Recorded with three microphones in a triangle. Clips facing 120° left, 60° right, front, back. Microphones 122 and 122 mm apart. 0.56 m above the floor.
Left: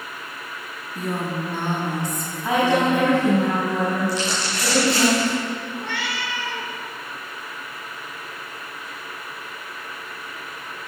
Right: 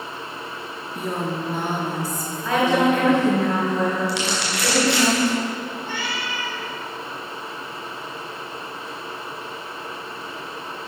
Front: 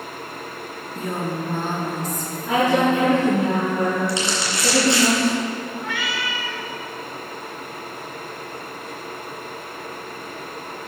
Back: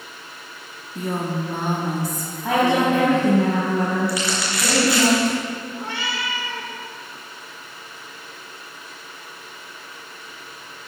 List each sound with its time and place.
0.9 s a woman speaking: 120° right, 1.1 m
2.4 s a woman speaking: 170° right, 4 m
4.1 s crumpling: 65° right, 3 m
5.8 s a cat meowing: 125° left, 1.1 m